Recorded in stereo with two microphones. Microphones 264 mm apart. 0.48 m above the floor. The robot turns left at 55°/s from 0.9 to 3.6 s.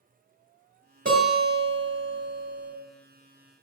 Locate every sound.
1.1 s a guitar: 50° right, 1.2 m; by 2.7 s 140° right, 1.2 m